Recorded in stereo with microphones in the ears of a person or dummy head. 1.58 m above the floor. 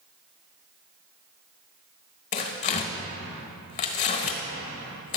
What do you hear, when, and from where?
2.3 s tearing paper: 40° left (ahead or behind), 1.1 m